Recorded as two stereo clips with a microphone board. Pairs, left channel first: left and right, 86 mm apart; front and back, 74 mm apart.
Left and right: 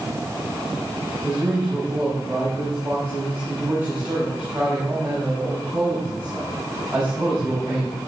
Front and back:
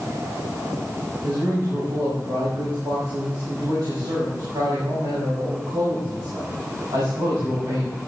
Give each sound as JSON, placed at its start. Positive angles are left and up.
{"t": 1.2, "sound": "a man speaking", "azimuth_deg": -160, "distance_m": 4.5}